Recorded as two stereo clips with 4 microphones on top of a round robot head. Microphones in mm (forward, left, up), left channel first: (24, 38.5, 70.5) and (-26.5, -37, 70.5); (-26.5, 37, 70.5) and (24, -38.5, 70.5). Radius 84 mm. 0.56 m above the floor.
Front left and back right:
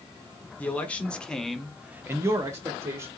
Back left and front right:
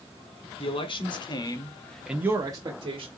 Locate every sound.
0.6 s a man speaking: 130° left, 1.5 m; by 3.1 s 70° right, 1.2 m